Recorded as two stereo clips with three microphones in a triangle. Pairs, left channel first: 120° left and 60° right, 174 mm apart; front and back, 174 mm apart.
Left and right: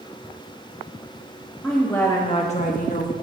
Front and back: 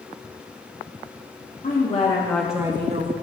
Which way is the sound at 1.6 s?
30° left.